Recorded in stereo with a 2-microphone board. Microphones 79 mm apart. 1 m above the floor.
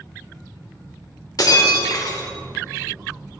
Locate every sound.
1.4 s breaking glass: 55° left (ahead or behind), 2.0 m